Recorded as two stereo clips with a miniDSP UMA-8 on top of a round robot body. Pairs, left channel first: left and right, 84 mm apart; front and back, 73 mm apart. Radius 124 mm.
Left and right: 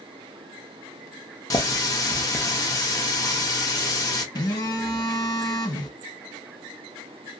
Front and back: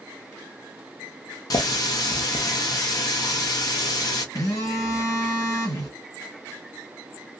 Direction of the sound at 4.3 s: 50° left.